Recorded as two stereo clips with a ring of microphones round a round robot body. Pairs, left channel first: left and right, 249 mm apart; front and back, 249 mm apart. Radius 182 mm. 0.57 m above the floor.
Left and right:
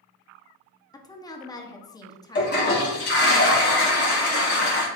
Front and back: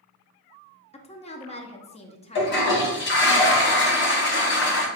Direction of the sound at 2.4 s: 40° left.